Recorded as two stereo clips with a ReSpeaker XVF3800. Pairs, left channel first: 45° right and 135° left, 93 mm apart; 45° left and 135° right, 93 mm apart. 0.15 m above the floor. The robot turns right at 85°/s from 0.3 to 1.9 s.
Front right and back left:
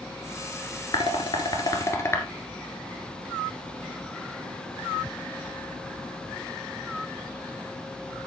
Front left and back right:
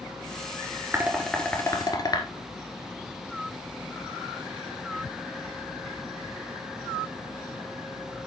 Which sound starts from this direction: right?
Dishes clattering, at 0.9 s.